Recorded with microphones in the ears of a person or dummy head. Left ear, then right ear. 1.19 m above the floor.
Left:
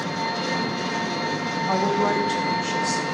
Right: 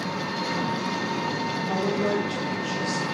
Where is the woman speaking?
55° left (ahead or behind), 0.7 m.